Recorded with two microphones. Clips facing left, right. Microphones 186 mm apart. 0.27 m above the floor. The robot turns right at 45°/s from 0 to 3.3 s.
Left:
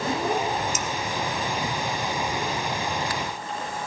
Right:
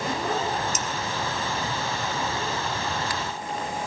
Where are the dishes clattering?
40° right (ahead or behind), 1.2 m; by 0.9 s 45° right (ahead or behind), 1.2 m.